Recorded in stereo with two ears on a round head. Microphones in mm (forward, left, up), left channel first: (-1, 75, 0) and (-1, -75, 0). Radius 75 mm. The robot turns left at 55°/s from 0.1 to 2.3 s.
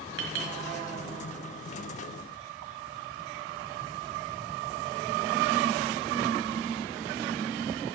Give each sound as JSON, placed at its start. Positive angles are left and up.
{"t": 0.2, "sound": "a clink", "side_deg": -70, "distance_m": 1.4}